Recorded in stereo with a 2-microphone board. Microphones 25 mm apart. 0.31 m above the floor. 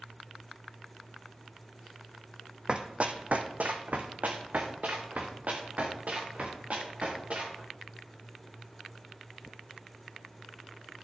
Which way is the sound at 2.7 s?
35° right (ahead or behind).